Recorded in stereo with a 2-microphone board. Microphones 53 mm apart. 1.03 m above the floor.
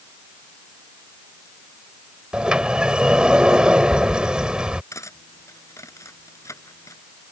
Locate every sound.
2.3 s a sliding door: 15° right (ahead or behind)
4.9 s cutlery clinking: 70° left (ahead or behind)